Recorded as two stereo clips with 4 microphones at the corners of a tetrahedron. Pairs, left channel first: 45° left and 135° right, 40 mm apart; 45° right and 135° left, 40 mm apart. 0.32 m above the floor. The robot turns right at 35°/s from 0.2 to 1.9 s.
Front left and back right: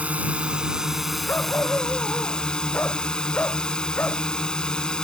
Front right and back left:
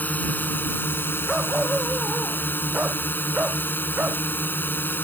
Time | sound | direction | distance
0.0 | a drone | 85° right | ?
1.3 | a dog barking | 60° left | ?